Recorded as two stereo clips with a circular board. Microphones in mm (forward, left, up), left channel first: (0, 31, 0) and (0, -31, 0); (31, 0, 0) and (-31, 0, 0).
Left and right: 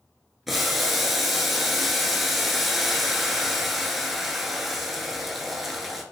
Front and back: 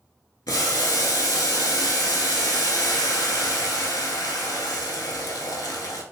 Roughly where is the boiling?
Ahead.